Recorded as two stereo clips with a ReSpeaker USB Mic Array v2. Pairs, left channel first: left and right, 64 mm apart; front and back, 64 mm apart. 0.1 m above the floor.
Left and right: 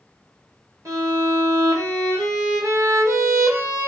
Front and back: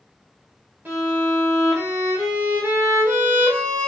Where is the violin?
125° right, 1.8 m.